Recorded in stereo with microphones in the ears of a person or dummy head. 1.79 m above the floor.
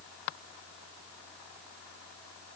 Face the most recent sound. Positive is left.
No sound to turn to.